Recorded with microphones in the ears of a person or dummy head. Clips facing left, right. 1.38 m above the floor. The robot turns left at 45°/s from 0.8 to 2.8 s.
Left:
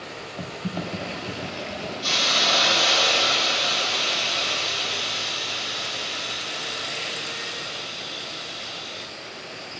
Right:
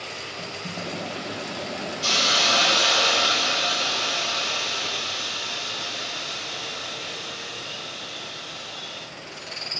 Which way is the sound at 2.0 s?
120° right.